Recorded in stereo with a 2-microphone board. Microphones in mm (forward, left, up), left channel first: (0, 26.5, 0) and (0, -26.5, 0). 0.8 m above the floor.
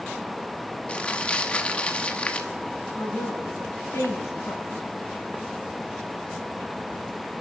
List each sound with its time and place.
0.9 s crumpling: 25° left (ahead or behind), 0.9 m
2.9 s a woman speaking: 65° left (ahead or behind), 4.5 m